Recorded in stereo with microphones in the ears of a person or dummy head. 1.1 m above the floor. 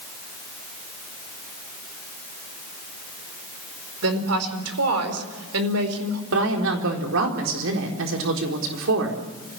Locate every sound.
4.0 s a woman speaking: 80° right, 4.5 m
6.3 s a woman speaking: 75° right (ahead or behind), 4 m